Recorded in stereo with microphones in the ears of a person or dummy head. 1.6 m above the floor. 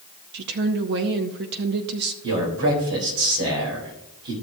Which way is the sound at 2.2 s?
75° right (ahead or behind).